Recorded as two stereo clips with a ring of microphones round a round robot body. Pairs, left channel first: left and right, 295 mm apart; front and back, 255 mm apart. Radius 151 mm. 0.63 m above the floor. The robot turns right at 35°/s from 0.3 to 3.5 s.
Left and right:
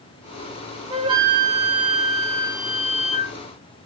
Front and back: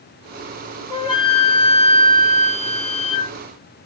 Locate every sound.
0.9 s a flute: 45° right, 0.9 m; by 3.4 s 40° left, 0.9 m